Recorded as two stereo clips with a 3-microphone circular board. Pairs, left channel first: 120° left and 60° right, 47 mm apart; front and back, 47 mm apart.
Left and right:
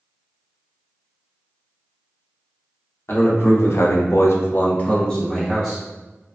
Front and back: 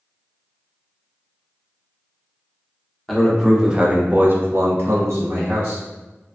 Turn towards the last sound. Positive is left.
turn(degrees=-150)